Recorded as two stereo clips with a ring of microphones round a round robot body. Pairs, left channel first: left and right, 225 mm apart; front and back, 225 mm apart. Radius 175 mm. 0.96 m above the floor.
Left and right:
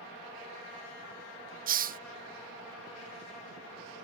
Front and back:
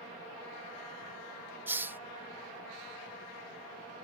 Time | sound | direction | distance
1.7 | a hiss | 105° right | ?